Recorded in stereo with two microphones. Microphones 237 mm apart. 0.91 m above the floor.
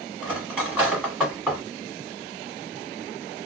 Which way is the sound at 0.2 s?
5° right (ahead or behind).